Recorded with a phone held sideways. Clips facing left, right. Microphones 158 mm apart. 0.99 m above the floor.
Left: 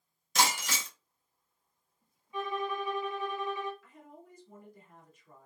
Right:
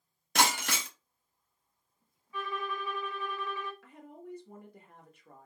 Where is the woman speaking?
75° right (ahead or behind), 1.2 m.